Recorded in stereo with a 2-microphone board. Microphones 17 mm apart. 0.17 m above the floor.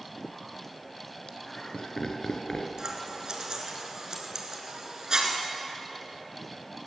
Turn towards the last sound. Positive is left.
turn(degrees=-50)  # may be behind; listen again after turning